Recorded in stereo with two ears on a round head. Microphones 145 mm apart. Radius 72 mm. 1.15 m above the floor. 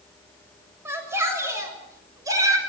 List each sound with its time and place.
0.8 s a shout: 15° right (ahead or behind), 7 m; by 2.6 s 20° right (ahead or behind), 6 m